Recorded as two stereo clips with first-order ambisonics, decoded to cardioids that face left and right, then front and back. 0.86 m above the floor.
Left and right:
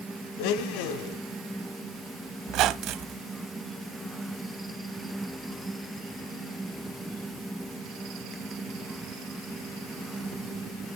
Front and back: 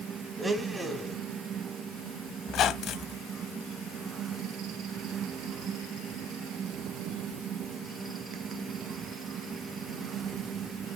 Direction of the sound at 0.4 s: 95° left.